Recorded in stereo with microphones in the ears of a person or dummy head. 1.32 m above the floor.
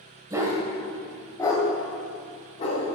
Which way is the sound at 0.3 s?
15° right (ahead or behind).